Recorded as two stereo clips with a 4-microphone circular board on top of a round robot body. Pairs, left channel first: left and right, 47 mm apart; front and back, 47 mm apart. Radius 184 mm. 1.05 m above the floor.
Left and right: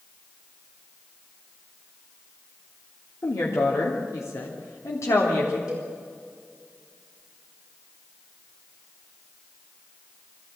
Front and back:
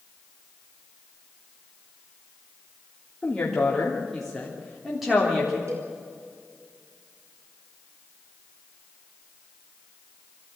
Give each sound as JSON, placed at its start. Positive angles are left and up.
{"t": 3.2, "sound": "a woman speaking", "azimuth_deg": 75, "distance_m": 3.0}
{"t": 5.7, "sound": "a cowbell", "azimuth_deg": -165, "distance_m": 6.0}